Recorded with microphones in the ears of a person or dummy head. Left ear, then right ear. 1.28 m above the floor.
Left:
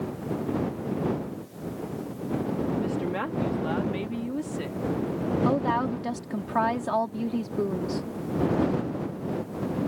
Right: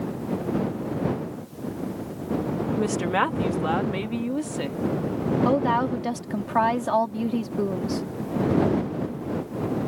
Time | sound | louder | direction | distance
2.8 | a woman speaking | right 6 dB | 60° right (ahead or behind) | ?
5.5 | a woman speaking | right 4 dB | 10° right (ahead or behind) | ?